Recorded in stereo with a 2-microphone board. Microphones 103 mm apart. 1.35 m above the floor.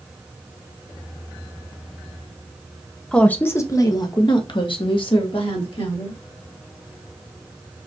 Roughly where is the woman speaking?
Centre.